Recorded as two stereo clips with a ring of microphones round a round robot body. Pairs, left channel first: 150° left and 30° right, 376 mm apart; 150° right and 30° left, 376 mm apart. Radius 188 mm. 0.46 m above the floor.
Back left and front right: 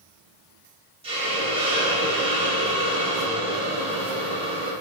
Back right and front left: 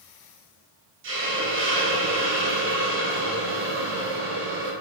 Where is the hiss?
30° left, 0.7 m.